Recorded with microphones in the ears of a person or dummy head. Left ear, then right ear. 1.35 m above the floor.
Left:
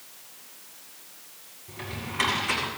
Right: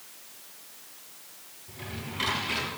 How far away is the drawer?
About 7 m.